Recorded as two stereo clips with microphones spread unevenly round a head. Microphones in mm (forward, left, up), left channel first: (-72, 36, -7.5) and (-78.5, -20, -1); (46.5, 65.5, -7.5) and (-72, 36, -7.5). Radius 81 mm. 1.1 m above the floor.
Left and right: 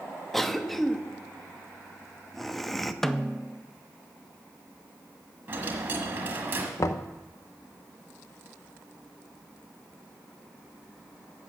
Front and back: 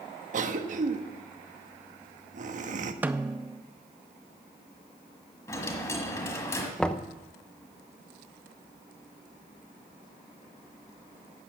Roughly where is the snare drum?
Behind left.